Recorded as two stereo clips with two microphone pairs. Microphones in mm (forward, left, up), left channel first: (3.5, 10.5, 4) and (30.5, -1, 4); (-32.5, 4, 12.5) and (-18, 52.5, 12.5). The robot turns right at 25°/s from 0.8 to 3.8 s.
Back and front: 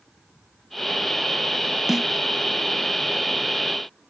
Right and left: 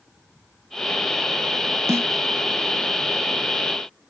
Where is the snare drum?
50° left; by 2.1 s 55° left.